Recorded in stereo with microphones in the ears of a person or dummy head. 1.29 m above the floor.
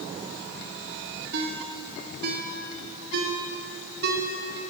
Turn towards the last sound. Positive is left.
turn(degrees=-65)  # may be behind; listen again after turning